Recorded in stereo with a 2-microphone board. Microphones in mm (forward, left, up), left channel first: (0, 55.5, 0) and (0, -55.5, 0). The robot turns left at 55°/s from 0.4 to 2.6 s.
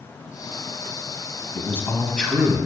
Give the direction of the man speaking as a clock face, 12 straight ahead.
10 o'clock.